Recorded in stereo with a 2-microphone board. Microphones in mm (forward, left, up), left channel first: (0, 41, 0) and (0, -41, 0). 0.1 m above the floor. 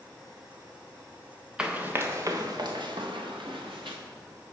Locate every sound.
1.6 s running footsteps: 10° right (ahead or behind), 1.1 m; by 4.0 s 85° right, 1.9 m